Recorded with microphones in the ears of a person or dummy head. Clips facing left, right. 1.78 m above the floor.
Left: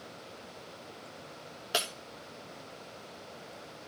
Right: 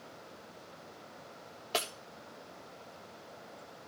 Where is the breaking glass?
15° left (ahead or behind), 1.4 m.